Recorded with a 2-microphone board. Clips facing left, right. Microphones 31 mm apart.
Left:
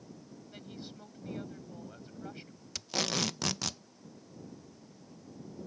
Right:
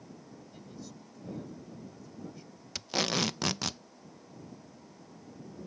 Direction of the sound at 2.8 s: 10° right (ahead or behind).